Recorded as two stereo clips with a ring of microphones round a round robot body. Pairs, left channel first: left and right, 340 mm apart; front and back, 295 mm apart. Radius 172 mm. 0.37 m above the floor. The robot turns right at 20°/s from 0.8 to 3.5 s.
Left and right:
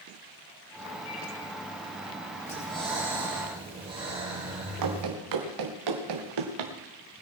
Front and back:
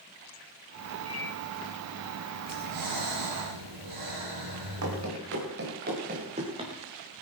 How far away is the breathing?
About 5.5 m.